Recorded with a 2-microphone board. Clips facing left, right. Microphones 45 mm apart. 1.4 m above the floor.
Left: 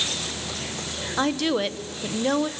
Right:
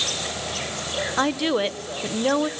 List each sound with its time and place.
0.0 s an insect: 60° right (ahead or behind), 5 m
1.2 s a woman speaking: 10° right (ahead or behind), 0.7 m